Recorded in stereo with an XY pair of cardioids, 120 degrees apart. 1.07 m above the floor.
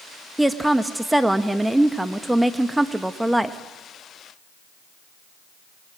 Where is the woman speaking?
5° right, 1.0 m.